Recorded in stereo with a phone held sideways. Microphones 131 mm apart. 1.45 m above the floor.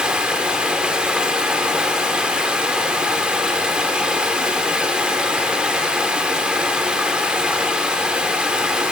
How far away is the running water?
About 1.1 m.